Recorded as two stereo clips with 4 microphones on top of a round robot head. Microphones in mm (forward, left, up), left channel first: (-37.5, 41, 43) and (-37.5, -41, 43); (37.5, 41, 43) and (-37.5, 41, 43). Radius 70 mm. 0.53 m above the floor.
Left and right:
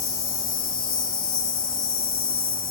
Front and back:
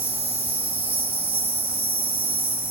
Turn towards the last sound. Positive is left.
turn(degrees=115)